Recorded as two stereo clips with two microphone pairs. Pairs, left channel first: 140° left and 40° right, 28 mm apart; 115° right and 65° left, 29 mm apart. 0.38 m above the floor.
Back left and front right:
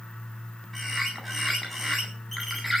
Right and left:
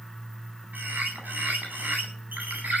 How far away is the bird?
About 9.5 m.